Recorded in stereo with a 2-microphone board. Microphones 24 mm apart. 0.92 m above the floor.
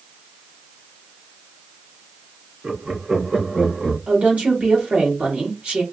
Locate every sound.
2.6 s laughter: 60° right (ahead or behind), 1.5 m; by 4.0 s 20° right (ahead or behind), 1.8 m
4.1 s a woman speaking: 60° right (ahead or behind), 1.9 m